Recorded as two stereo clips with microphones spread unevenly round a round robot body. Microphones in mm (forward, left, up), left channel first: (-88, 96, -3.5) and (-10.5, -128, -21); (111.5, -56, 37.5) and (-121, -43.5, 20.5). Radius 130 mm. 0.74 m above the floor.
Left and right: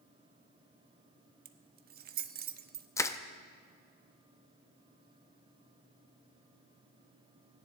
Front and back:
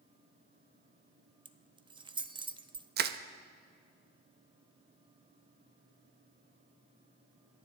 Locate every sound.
1.4 s keys jangling: 115° right, 0.7 m
3.0 s crushing: 170° right, 0.6 m